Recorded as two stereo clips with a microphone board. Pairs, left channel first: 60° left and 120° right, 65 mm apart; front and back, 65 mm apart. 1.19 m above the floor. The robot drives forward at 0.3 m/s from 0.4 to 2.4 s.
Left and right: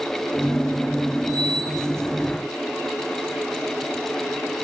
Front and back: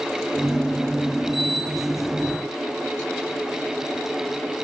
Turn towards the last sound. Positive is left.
No sound to turn to.